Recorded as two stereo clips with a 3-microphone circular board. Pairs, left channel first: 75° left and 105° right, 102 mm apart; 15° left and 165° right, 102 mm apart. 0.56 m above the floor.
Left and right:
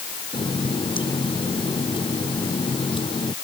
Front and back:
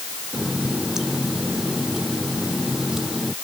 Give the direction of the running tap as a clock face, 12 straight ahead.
8 o'clock.